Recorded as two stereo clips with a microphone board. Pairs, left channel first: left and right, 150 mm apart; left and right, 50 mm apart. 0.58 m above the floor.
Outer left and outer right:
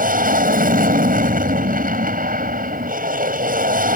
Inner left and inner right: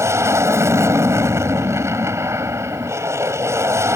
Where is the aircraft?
65° right (ahead or behind).